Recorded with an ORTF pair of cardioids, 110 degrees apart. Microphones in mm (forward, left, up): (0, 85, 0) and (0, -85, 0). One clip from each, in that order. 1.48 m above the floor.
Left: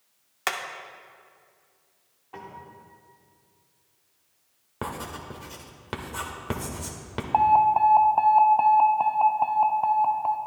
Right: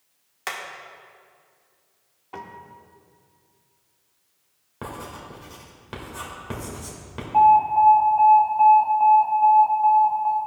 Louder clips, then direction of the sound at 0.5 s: Left 3 dB; 25° left.